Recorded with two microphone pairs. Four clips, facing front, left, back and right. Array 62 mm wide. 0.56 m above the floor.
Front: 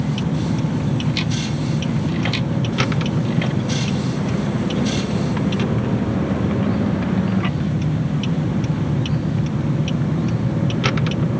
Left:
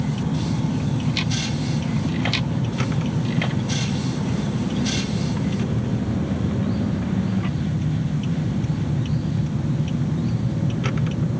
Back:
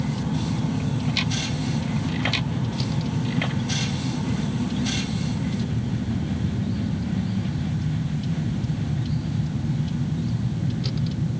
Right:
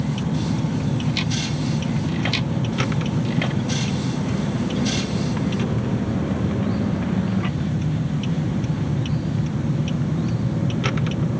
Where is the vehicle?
15° right.